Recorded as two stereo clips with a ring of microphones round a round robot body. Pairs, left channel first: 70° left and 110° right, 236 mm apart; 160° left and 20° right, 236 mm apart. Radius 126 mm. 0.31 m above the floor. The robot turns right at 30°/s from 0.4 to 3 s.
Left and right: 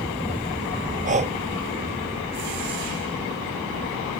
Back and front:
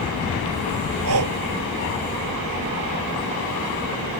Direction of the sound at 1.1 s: 55° right.